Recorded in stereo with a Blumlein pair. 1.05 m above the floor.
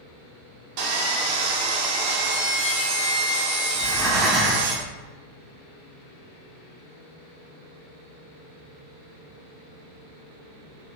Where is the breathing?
15° right, 0.6 m.